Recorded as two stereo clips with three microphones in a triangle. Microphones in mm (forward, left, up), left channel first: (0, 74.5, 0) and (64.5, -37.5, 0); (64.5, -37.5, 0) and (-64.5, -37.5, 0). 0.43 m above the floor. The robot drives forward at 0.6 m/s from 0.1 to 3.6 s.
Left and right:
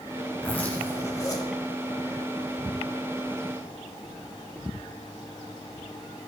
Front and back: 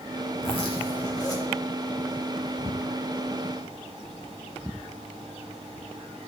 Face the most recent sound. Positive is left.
turn(degrees=135)